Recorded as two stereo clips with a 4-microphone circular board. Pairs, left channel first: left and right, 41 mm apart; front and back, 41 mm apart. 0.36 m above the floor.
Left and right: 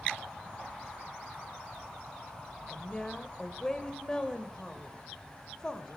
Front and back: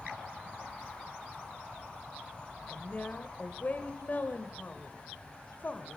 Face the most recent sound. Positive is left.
turn(degrees=25)